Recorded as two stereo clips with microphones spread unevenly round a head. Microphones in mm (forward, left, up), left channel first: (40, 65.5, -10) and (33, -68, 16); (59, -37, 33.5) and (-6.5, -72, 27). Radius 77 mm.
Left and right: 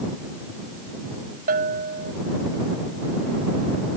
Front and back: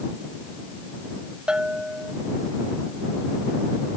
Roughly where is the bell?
Right.